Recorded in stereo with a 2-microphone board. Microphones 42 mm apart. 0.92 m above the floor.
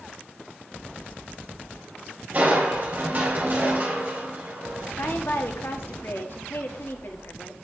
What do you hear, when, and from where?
2.3 s crushing: 40° right (ahead or behind), 3 m
5.0 s a woman speaking: 55° left (ahead or behind), 1.6 m